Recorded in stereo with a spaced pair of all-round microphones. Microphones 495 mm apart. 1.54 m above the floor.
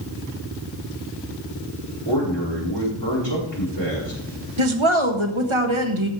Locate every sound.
2.0 s a man speaking: 55° left (ahead or behind), 4.5 m
4.6 s a woman speaking: 70° right (ahead or behind), 1.4 m